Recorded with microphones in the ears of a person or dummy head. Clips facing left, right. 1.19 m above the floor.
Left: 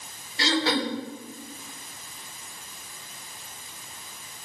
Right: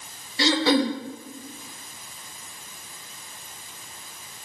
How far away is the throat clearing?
About 1.4 m.